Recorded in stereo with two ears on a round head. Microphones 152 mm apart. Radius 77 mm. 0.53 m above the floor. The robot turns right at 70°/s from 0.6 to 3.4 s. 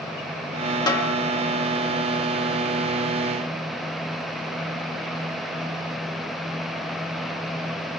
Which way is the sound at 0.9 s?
25° left (ahead or behind).